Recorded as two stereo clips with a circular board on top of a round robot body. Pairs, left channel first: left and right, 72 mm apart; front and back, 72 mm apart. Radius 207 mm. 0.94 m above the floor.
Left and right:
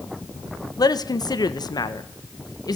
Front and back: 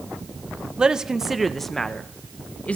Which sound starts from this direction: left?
A man speaking, at 0.8 s.